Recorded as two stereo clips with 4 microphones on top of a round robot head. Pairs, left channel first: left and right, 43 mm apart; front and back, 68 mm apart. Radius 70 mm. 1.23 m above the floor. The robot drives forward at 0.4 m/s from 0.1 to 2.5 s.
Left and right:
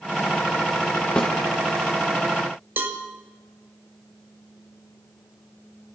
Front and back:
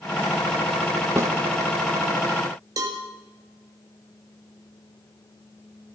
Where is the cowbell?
140° right, 1.8 m.